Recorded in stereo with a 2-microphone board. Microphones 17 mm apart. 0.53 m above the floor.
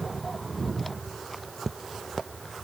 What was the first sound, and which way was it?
Only background noise.